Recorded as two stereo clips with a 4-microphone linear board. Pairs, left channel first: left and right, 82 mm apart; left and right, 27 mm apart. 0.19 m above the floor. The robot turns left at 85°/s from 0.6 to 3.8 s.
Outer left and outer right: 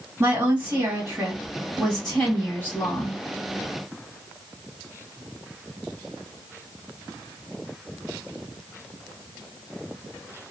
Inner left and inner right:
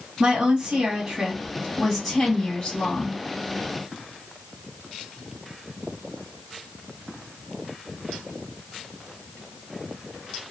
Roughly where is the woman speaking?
Ahead right.